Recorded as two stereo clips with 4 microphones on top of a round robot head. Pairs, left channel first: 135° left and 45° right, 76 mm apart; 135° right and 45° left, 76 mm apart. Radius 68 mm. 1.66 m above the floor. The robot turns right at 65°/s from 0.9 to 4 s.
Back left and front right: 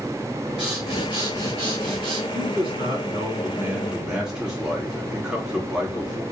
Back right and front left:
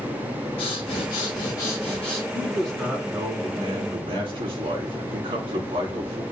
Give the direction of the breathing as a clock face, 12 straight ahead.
4 o'clock.